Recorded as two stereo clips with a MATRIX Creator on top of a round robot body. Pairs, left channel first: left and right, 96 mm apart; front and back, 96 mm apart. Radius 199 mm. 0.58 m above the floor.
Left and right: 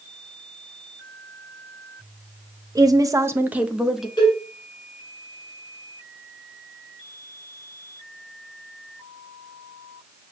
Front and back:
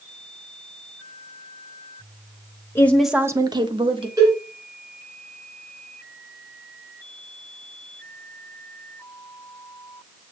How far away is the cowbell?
About 4 m.